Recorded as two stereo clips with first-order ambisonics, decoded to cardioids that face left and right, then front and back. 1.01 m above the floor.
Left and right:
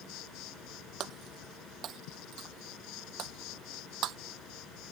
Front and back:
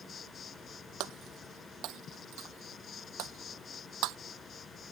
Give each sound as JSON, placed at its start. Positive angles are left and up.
{"t": 0.0, "sound": "an insect", "azimuth_deg": 65}
{"t": 1.0, "sound": "breaking glass", "azimuth_deg": -140}